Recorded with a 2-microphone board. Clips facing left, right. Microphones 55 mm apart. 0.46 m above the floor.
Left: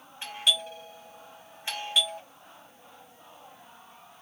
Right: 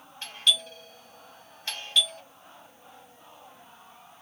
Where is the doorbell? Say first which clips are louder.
Right 1 dB; 20° left (ahead or behind), 1.7 m.